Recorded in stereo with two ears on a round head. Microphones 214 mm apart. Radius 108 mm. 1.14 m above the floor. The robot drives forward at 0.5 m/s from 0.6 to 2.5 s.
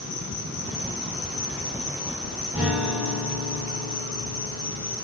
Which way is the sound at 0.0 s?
85° left.